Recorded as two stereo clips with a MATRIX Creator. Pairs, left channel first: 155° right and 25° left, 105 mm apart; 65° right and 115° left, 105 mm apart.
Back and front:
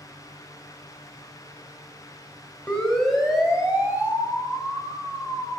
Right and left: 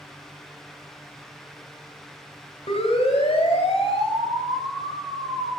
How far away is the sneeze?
I don't hear a sneeze.